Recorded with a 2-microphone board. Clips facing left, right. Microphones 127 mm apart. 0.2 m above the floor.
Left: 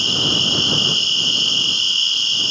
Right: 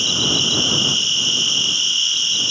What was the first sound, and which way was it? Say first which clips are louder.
An insect: even; 25° left (ahead or behind).